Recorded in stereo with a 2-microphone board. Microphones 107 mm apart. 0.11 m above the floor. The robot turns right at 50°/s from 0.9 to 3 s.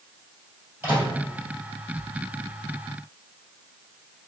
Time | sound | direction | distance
0.8 | a microwave | 20° right (ahead or behind) | 1.9 m